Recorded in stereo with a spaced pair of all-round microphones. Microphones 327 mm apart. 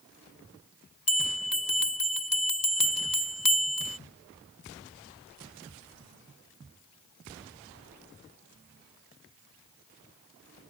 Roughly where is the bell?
Left.